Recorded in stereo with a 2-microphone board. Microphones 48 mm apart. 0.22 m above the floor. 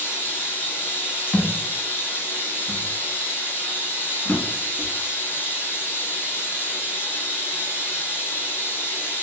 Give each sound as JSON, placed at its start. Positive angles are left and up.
{"t": 0.0, "sound": "running water", "side_deg": 45, "distance_m": 0.8}
{"t": 1.3, "sound": "a thud", "side_deg": 45, "distance_m": 0.8}
{"t": 4.2, "sound": "a drawer", "side_deg": 60, "distance_m": 1.2}